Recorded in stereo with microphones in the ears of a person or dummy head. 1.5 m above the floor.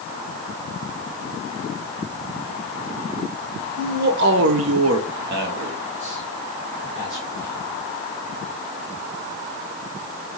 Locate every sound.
3.8 s a man speaking: 50° right (ahead or behind), 1.0 m; by 7.7 s 15° right (ahead or behind), 2 m